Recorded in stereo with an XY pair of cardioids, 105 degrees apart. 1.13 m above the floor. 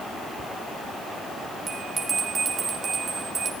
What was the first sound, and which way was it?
A bell, 40° right.